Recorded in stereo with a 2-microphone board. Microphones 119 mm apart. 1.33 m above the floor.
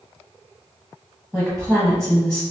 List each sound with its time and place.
1.3 s a woman speaking: centre (ahead or behind), 1.0 m